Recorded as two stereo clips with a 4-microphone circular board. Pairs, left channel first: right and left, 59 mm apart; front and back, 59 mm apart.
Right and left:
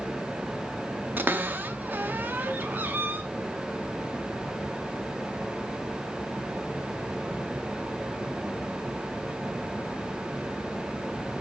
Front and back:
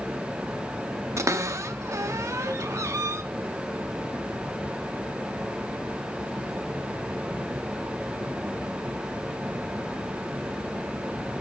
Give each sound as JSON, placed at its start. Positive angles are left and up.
{"t": 1.2, "sound": "a cupboard door", "azimuth_deg": 145, "distance_m": 0.7}